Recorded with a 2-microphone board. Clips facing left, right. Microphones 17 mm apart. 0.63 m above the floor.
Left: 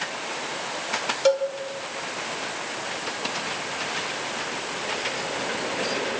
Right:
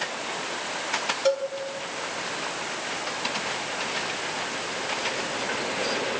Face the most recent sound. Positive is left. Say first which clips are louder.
# left 4 dB
turn(degrees=55)  # may be behind; listen again after turning